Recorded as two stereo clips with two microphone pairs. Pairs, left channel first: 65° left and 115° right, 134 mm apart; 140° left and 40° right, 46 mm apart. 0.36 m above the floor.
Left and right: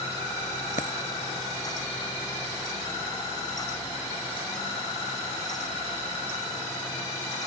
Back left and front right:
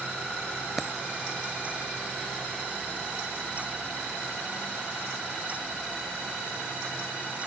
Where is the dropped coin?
45° left.